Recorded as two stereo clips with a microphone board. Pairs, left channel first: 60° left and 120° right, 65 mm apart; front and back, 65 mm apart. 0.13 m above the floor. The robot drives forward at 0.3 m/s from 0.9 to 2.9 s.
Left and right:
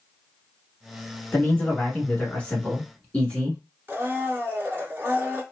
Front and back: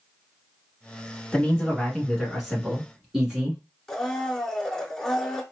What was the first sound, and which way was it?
A man speaking, 60° left.